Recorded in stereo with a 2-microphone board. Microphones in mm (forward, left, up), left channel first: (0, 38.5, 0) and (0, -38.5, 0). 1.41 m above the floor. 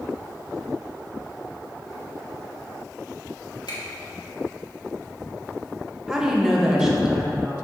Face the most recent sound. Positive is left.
turn(degrees=-5)  # may be behind; listen again after turning